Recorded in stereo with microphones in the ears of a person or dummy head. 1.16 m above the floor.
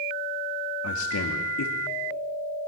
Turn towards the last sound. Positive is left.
turn(degrees=85)